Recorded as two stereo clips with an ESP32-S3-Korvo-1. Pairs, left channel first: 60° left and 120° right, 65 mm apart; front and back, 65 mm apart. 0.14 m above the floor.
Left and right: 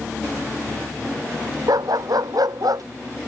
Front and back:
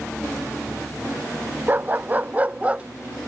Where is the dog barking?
120° right; by 2.8 s 110° right.